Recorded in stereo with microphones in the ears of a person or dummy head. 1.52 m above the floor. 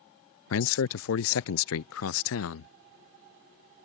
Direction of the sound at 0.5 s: 70° left (ahead or behind).